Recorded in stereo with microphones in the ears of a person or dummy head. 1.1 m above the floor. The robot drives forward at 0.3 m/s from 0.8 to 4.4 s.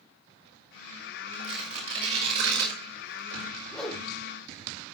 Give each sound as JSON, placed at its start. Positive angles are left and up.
{"t": 1.3, "sound": "tearing paper", "side_deg": -85, "distance_m": 6.0}
{"t": 3.7, "sound": "a whoosh", "side_deg": 10, "distance_m": 3.0}